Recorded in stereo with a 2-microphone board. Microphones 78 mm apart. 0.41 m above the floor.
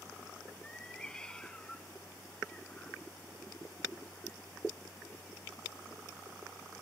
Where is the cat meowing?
10° left (ahead or behind); by 6.3 s 15° left (ahead or behind).